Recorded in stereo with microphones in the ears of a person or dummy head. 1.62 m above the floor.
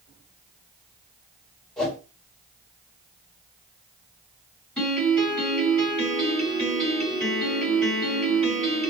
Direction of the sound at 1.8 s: 5° left (ahead or behind).